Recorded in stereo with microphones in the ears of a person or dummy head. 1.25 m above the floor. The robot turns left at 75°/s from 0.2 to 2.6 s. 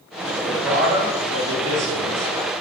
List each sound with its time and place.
0.4 s a man speaking: 20° left, 1.4 m; by 2.6 s 145° right, 1.4 m